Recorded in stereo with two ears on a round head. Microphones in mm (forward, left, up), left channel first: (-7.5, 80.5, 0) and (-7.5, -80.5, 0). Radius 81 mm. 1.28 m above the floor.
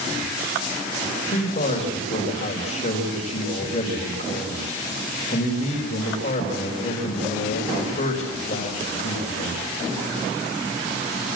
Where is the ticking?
No ticking in this recording.